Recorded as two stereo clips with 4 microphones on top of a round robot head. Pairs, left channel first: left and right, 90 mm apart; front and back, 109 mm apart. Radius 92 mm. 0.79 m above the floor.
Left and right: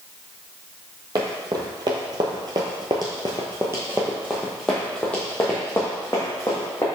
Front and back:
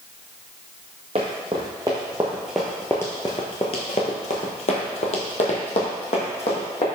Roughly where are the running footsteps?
Behind right.